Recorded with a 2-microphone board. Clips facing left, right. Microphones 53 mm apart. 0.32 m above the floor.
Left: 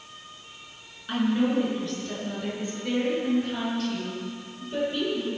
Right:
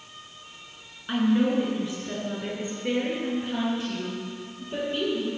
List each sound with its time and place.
1.1 s a woman speaking: 10° right (ahead or behind), 3.5 m; by 5.3 s 20° right (ahead or behind), 7.5 m